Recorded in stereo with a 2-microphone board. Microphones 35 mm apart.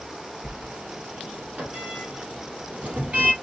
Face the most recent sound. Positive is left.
turn(degrees=-40)  # may be behind; listen again after turning